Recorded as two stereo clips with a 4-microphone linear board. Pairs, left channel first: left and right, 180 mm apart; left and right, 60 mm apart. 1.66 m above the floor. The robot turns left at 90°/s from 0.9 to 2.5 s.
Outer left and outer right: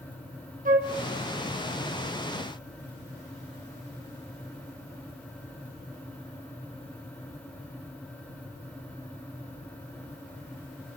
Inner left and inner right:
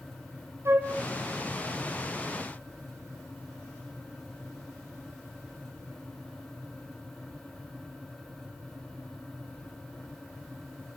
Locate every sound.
0.7 s a flute: 45° right (ahead or behind), 2.5 m